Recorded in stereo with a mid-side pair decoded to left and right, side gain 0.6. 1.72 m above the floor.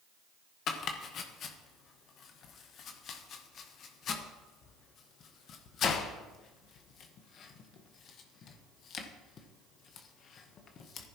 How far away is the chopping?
About 1.3 m.